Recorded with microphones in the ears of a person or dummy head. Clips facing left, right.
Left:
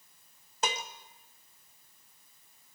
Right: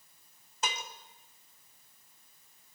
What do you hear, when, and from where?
0.6 s dishes clattering: 35° left (ahead or behind), 1.1 m